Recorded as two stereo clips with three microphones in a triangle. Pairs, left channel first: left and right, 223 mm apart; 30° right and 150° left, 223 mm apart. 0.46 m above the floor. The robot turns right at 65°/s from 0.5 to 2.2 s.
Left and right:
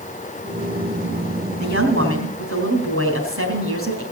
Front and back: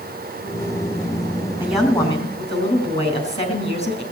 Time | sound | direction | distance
1.6 | a woman speaking | 130° right | 4 m